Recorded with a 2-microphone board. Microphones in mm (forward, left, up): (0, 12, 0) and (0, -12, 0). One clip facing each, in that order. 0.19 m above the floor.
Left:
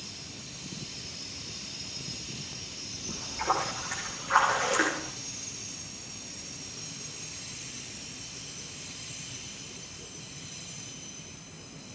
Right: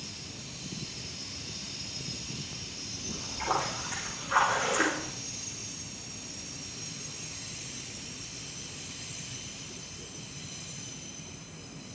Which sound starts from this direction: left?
A splash, at 3.1 s.